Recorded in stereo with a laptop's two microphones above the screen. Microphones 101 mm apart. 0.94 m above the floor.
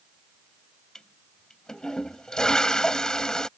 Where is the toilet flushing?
5° left (ahead or behind).